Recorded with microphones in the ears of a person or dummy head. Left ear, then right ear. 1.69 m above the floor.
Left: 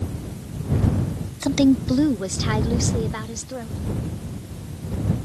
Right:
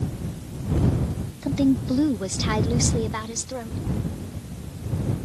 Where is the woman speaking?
40° left (ahead or behind); by 3.8 s 20° right (ahead or behind).